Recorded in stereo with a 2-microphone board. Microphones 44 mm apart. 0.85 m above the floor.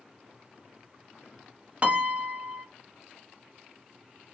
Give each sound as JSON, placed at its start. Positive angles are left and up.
{"t": 1.8, "sound": "a piano", "side_deg": -35, "distance_m": 0.8}